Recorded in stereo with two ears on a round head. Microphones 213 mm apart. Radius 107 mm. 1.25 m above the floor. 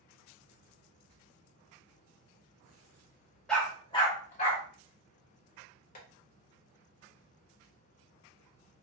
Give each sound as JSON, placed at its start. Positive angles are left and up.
{"t": 3.5, "sound": "a dog barking", "side_deg": 5, "distance_m": 1.0}
{"t": 6.0, "sound": "tapping", "side_deg": 35, "distance_m": 1.1}